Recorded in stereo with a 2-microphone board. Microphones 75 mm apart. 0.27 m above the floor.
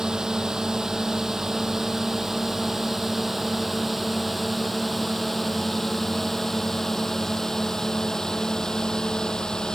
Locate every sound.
0.0 s a drone: 5° right (ahead or behind); by 9.8 s 10° left (ahead or behind)